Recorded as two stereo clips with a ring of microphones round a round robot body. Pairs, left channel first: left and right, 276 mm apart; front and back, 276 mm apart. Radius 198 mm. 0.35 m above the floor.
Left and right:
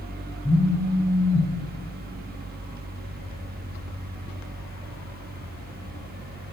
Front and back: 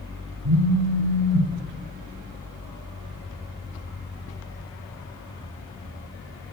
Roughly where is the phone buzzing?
Behind.